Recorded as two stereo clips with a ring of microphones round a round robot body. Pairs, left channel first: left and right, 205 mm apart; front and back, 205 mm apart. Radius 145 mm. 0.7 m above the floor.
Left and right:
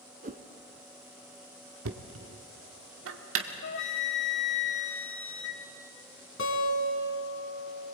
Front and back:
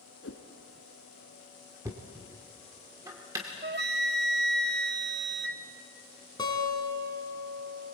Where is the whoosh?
45° right, 1.5 m.